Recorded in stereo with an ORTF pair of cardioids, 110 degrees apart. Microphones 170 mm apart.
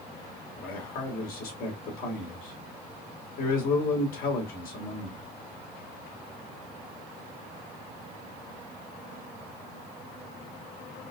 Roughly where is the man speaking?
Ahead left.